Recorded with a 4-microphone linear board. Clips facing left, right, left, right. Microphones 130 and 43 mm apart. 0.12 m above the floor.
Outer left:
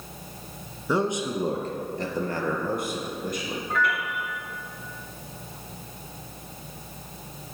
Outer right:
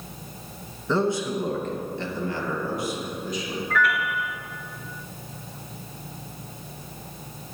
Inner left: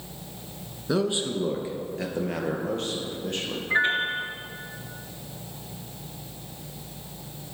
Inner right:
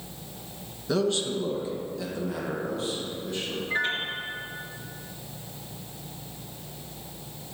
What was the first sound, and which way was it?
A man speaking, 10° left (ahead or behind).